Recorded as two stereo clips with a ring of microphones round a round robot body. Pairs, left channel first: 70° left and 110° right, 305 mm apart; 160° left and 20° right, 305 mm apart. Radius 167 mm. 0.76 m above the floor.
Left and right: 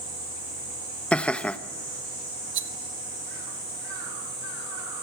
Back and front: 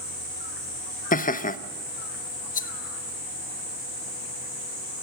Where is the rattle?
145° right, 1.1 m.